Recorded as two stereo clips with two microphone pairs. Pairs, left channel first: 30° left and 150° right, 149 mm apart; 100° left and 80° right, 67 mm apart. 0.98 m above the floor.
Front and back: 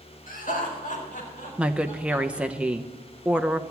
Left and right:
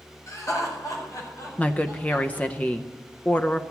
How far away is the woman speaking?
About 0.6 m.